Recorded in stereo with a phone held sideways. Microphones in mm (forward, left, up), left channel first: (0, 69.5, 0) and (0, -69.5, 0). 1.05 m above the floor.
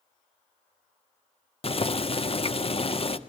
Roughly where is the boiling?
Left.